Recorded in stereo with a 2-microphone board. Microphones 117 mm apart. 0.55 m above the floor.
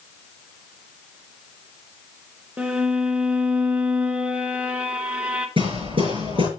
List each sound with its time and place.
2.6 s a violin: 10° right (ahead or behind), 1.6 m
5.6 s hammering: 50° right (ahead or behind), 6 m